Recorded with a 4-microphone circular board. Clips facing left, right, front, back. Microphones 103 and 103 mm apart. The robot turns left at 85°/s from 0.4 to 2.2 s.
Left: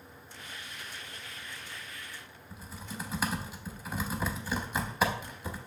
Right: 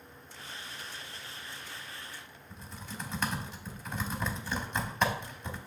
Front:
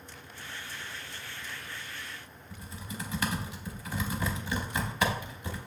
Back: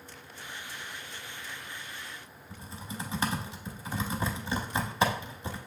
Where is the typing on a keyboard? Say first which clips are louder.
Left 2 dB, back 1 dB; 170° left, 0.6 m.